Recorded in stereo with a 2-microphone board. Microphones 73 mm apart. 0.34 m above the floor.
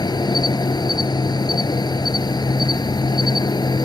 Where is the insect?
70° left (ahead or behind).